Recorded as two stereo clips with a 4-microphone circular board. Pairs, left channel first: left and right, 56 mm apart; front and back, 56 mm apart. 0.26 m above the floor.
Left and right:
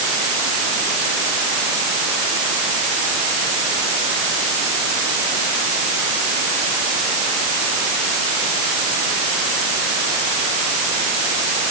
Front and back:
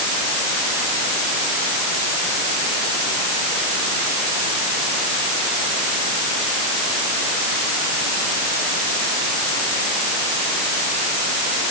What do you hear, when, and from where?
Only background noise.